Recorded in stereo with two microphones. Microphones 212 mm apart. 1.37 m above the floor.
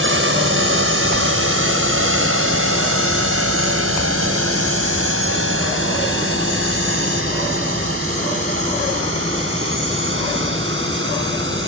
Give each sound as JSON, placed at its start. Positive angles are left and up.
{"t": 0.0, "sound": "a drone", "side_deg": -70}